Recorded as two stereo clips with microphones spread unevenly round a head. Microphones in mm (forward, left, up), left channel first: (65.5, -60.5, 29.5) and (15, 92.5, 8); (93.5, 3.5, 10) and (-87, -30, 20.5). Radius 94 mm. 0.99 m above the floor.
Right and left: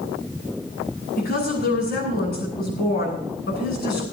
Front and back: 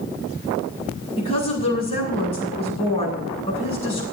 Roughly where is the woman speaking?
Ahead right.